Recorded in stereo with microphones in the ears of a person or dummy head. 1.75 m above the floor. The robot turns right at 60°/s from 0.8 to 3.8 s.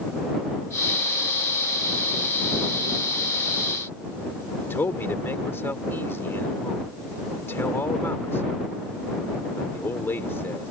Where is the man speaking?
15° left (ahead or behind).